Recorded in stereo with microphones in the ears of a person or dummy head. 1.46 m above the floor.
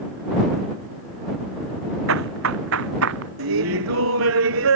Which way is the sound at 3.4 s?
80° right.